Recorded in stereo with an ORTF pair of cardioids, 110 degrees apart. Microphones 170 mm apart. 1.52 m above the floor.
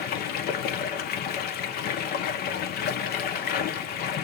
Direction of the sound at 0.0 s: 65° left.